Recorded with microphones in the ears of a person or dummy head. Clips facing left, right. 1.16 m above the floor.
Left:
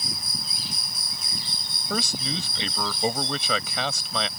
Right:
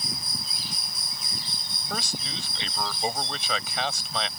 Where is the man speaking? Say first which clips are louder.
Left 6 dB; 85° left.